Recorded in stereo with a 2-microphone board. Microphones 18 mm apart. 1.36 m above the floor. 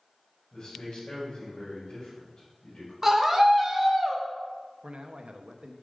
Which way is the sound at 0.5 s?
60° left (ahead or behind).